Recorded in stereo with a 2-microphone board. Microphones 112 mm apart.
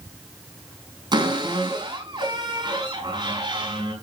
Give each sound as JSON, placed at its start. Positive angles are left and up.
{"t": 1.1, "sound": "a cupboard door", "side_deg": -40, "distance_m": 5.0}